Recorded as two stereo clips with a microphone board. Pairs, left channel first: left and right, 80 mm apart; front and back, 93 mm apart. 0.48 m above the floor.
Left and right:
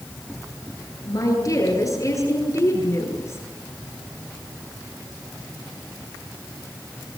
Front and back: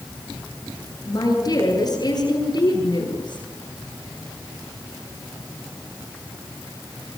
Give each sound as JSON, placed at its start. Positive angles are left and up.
{"t": 1.1, "sound": "a woman speaking", "azimuth_deg": 50, "distance_m": 10.0}